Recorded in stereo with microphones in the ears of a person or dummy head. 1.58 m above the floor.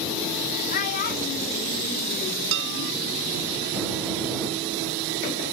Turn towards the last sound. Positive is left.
turn(degrees=-60)  # may be behind; listen again after turning